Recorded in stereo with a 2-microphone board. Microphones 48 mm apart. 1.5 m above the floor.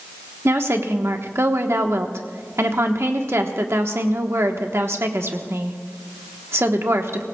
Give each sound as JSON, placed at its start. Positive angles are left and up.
{"t": 0.5, "sound": "a woman speaking", "side_deg": -70, "distance_m": 1.3}